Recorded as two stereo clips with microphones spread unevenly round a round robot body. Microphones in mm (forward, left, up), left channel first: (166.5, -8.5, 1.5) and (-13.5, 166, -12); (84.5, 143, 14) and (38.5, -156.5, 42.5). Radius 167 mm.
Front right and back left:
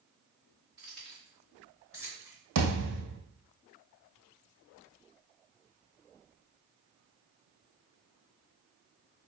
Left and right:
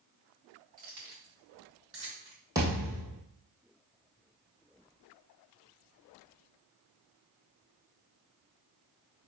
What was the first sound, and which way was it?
Keys jangling, 135° right.